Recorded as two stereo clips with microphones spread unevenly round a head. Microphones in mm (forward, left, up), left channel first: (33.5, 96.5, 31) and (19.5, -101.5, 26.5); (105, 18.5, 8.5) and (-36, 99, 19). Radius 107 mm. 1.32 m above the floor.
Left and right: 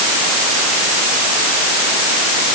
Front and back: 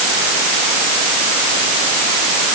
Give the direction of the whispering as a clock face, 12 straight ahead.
No whispering in this recording.